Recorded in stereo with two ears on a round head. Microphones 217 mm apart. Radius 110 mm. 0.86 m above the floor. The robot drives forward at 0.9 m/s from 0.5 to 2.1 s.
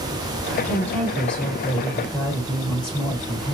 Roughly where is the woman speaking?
Centre.